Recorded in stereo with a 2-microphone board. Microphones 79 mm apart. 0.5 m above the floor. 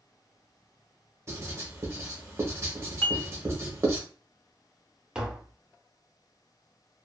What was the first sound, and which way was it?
Writing, 35° right (ahead or behind).